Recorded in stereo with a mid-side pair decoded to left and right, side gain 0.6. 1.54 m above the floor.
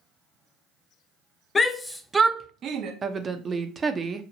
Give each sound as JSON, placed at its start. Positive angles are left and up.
{"t": 1.6, "sound": "a shout", "azimuth_deg": 30, "distance_m": 0.6}
{"t": 3.0, "sound": "a woman speaking", "azimuth_deg": -30, "distance_m": 0.6}